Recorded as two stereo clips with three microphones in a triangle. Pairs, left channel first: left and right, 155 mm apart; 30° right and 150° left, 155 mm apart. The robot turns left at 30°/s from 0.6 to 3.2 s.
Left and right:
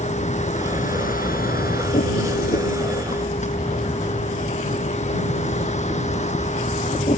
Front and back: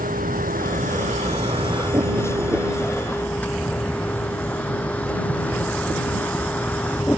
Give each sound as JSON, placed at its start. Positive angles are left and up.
{"t": 0.0, "sound": "a vehicle", "azimuth_deg": 130}